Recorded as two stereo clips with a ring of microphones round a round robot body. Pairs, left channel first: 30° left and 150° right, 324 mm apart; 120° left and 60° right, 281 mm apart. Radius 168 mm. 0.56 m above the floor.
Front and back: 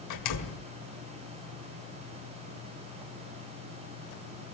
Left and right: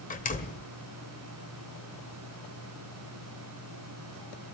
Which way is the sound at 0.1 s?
60° left.